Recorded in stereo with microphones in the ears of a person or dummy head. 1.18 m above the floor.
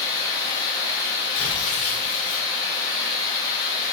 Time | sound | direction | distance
0.0 | running water | 20° left (ahead or behind) | 0.7 m
1.3 | tearing paper | 40° left (ahead or behind) | 0.9 m